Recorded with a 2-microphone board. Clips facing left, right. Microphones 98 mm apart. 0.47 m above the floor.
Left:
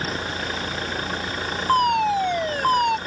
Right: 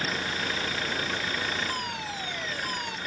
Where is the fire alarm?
65° left (ahead or behind).